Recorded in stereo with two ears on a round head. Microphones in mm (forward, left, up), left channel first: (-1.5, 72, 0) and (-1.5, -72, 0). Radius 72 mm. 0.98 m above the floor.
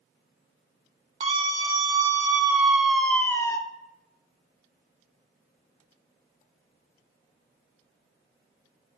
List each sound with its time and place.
1.2 s a scream: 35° right (ahead or behind), 2 m; by 3.6 s 20° left (ahead or behind), 1.4 m